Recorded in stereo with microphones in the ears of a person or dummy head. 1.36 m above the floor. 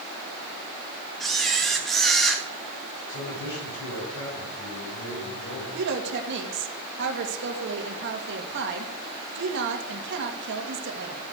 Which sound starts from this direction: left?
A man speaking, at 3.1 s.